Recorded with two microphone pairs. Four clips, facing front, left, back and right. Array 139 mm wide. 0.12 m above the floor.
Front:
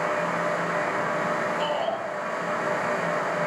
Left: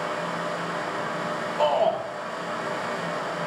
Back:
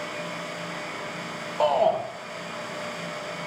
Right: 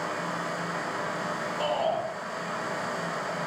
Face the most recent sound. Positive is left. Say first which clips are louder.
# left 6 dB, back 5 dB
turn(degrees=135)